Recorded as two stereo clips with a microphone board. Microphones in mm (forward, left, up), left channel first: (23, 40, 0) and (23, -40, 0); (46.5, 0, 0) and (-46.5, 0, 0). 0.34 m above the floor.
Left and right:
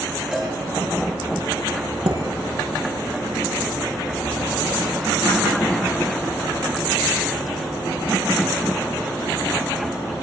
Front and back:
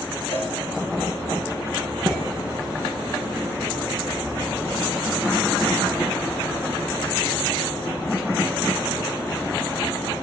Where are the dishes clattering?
60° right, 8.5 m.